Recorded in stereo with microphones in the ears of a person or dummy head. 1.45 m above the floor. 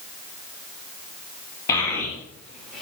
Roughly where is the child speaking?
Centre.